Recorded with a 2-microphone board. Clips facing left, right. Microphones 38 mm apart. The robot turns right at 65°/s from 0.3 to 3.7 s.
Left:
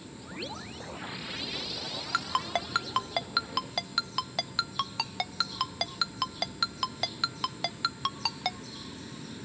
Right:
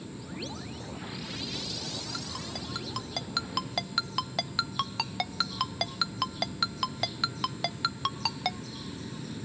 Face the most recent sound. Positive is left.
turn(degrees=0)  # may be behind; listen again after turning